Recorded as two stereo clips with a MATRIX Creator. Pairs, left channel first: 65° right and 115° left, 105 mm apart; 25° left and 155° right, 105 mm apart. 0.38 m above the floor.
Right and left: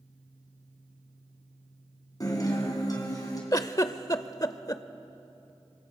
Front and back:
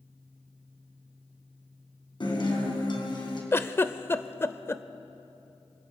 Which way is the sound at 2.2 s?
15° right.